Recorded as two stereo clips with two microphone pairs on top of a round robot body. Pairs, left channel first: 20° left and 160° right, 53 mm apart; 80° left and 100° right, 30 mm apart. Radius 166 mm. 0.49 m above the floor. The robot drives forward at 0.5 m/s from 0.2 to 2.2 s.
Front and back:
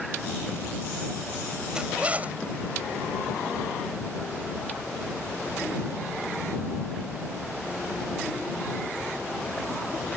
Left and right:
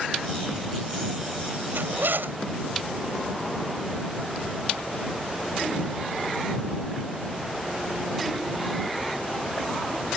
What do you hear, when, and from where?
1.7 s a zipper: 85° right; by 2.4 s 100° right